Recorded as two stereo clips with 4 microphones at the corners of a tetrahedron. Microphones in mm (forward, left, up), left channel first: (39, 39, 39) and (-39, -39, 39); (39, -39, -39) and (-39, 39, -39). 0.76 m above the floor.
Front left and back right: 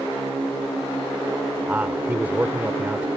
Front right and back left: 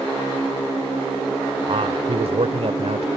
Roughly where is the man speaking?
Behind left.